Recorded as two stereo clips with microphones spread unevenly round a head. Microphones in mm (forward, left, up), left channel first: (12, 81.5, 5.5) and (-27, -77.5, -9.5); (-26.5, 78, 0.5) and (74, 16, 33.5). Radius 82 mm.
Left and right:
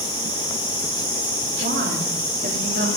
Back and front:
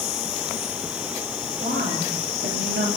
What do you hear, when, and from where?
1.6 s a woman speaking: 65° right, 3 m